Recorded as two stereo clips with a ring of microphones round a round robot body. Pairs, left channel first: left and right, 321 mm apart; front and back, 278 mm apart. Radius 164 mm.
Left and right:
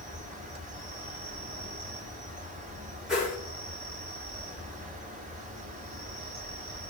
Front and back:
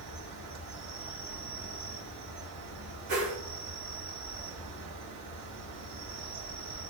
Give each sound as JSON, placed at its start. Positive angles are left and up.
{"t": 0.0, "sound": "an insect", "azimuth_deg": -155, "distance_m": 1.1}
{"t": 3.1, "sound": "a whoosh", "azimuth_deg": 180, "distance_m": 2.5}